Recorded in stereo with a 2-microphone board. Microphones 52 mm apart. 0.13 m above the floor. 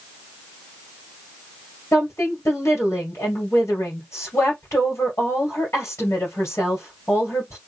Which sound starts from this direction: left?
A woman speaking, at 1.9 s.